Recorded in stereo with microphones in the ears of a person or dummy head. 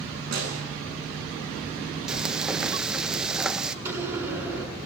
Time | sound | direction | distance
0.3 | a snare drum | 80° right | 9 m
2.1 | frying | 5° right (ahead or behind) | 0.9 m
3.9 | a door slam | 15° right (ahead or behind) | 8 m